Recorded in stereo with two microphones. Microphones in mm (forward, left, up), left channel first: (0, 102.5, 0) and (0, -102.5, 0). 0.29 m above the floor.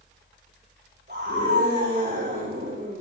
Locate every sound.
1.1 s a scream: 55° right (ahead or behind), 8 m